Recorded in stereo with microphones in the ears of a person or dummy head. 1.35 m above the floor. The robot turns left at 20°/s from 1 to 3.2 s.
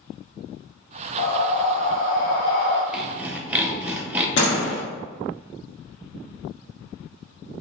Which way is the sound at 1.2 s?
85° left.